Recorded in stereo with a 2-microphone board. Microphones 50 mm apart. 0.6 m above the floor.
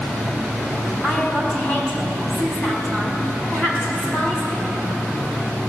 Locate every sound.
1.0 s a woman speaking: 25° left (ahead or behind), 4 m